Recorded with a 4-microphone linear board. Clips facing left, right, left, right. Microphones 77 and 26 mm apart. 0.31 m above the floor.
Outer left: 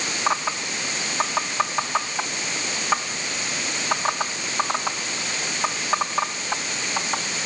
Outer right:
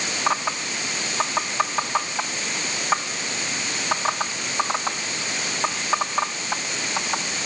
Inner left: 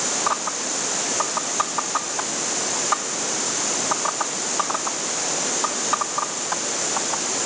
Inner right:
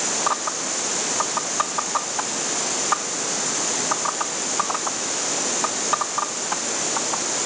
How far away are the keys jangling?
I don't hear keys jangling.